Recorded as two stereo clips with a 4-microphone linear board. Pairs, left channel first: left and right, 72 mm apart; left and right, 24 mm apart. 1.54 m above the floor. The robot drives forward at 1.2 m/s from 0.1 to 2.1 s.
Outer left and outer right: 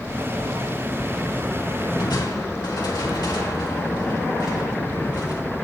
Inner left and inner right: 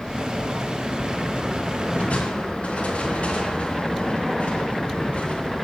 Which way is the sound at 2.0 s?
80° left.